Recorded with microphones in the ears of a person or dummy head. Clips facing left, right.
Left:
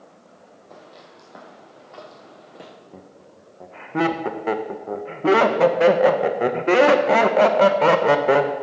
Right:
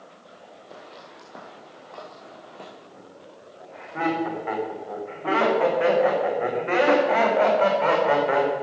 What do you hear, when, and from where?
0.7 s footsteps: 5° right (ahead or behind), 2.5 m; by 2.7 s 15° left (ahead or behind), 4 m
2.9 s laughter: 60° left (ahead or behind), 1.1 m